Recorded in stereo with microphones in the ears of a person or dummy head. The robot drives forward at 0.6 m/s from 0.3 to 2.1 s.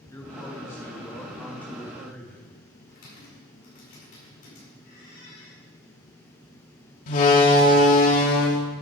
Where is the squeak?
55° left (ahead or behind), 6.5 m.